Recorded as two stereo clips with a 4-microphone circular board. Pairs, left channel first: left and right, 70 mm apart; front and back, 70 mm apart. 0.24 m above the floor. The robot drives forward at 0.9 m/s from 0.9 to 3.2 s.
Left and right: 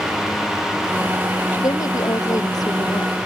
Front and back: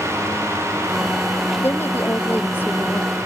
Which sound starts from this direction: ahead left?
A woman speaking, at 1.6 s.